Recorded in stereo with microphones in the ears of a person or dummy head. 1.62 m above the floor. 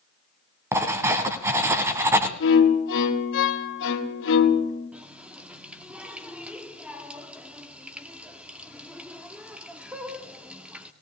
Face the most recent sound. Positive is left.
turn(degrees=-10)  # may be behind; listen again after turning